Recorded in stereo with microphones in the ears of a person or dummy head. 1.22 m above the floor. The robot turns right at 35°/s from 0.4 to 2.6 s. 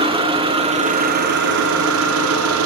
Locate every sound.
0.0 s an engine running: 155° right, 1.8 m; by 2.7 s 80° right, 1.8 m